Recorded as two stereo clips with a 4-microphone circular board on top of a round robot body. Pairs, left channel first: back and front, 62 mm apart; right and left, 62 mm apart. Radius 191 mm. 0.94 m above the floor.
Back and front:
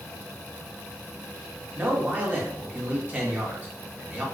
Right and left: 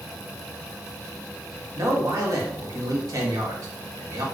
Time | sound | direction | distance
1.8 | a man speaking | 60° left | 1.0 m